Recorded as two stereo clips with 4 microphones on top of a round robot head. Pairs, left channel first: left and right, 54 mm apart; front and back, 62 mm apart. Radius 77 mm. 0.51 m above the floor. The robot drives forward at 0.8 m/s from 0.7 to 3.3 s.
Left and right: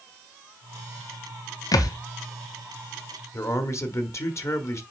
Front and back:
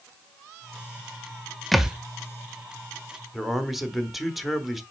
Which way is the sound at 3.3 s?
90° left.